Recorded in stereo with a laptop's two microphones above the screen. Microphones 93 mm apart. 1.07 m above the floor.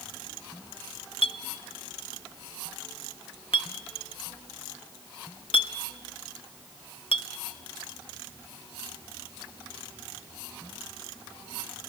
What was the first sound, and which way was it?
A clink, 70° left (ahead or behind).